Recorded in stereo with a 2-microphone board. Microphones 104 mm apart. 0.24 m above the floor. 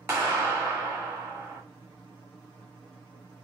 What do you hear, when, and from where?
0.1 s a clap: 30° right (ahead or behind), 1.5 m